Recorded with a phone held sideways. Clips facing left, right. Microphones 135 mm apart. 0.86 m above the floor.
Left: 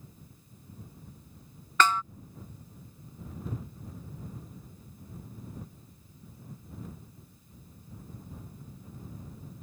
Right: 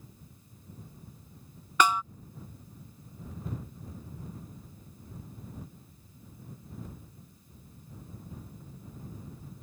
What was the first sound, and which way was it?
A snare drum, 15° right (ahead or behind).